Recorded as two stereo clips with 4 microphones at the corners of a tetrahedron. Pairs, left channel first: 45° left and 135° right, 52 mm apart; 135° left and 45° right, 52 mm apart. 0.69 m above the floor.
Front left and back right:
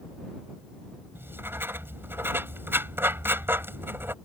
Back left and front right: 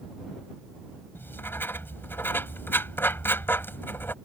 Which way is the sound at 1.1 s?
Straight behind.